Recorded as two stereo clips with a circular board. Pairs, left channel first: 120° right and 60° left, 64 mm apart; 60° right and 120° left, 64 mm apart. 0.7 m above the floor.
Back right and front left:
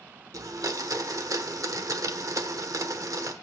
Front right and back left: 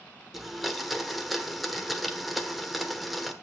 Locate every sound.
0.3 s a blender: 30° left, 0.9 m